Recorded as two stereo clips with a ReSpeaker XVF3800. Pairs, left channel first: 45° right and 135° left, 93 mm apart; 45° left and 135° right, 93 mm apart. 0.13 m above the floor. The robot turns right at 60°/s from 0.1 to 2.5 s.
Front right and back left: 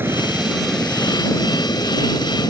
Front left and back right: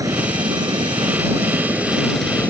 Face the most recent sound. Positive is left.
turn(degrees=-25)